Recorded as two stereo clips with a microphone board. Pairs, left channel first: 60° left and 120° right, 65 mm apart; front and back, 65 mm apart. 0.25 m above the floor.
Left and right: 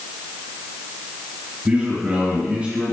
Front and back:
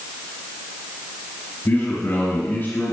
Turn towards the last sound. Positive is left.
turn(degrees=-50)